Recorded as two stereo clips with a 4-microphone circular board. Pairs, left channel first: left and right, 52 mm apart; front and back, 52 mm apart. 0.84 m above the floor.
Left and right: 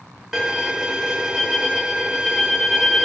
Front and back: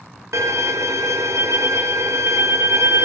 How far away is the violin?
About 0.5 m.